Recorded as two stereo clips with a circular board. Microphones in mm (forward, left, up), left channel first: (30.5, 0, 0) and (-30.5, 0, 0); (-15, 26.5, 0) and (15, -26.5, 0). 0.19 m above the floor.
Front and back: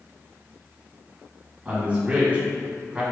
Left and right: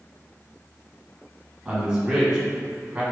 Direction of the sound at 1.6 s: 130° right.